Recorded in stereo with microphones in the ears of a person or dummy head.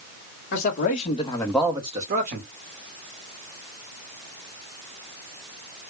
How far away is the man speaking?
About 1.1 m.